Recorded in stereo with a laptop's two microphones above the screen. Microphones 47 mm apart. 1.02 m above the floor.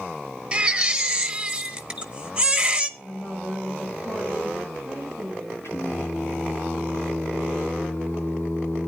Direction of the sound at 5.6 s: 70° left (ahead or behind).